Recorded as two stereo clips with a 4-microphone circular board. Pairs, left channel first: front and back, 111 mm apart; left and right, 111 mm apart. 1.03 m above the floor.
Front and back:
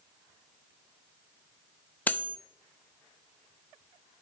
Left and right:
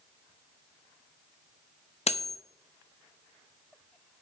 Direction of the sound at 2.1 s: 75° left.